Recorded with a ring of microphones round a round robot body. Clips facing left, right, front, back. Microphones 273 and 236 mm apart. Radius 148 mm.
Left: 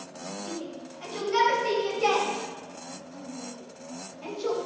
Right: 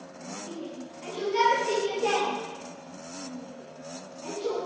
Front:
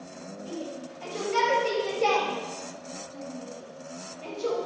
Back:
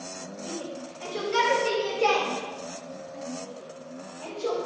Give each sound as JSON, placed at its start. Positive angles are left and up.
{"t": 0.5, "sound": "a shout", "azimuth_deg": 120, "distance_m": 4.5}